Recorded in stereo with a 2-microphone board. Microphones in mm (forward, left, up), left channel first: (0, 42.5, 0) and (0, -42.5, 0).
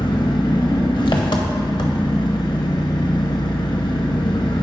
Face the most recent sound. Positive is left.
turn(degrees=70)  # may be behind; listen again after turning